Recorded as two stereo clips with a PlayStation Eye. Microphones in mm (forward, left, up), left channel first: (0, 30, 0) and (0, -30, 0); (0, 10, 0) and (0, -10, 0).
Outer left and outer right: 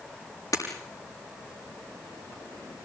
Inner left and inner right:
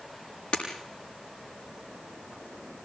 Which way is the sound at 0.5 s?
70° left (ahead or behind).